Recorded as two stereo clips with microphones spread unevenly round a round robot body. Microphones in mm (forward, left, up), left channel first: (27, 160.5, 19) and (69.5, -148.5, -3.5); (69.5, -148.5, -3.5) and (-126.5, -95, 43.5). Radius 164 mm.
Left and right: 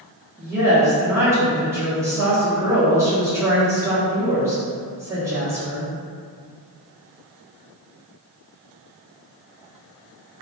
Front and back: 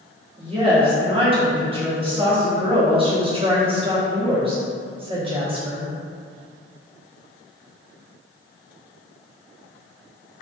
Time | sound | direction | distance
0.4 | a woman speaking | 140° right | 0.8 m